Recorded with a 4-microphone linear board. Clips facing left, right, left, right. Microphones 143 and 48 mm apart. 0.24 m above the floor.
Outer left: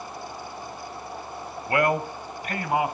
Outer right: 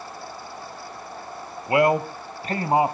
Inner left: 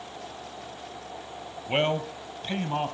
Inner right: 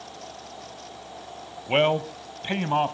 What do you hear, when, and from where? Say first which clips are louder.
1.7 s a man speaking: outer right 4 dB, inner right 4 dB; 20° right (ahead or behind), 1.0 m; by 2.9 s 30° right (ahead or behind), 1.2 m